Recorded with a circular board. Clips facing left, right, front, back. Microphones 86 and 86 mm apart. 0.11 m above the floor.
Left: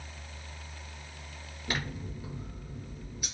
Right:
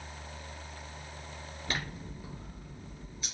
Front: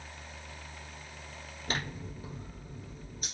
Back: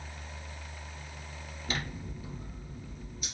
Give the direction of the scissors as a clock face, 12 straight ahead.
11 o'clock.